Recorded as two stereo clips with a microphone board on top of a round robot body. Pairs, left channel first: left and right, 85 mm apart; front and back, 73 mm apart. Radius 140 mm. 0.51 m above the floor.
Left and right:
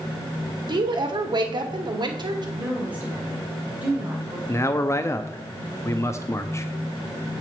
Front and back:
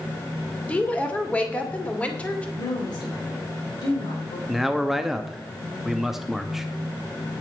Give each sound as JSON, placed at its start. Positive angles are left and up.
{"t": 0.7, "sound": "a woman speaking", "azimuth_deg": -70, "distance_m": 2.5}
{"t": 2.6, "sound": "a woman speaking", "azimuth_deg": -20, "distance_m": 3.0}
{"t": 4.5, "sound": "a man speaking", "azimuth_deg": 95, "distance_m": 1.0}